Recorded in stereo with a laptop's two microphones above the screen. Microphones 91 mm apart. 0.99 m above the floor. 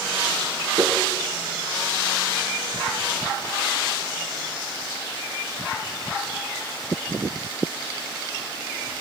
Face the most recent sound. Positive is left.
turn(degrees=-50)  # may be behind; listen again after turning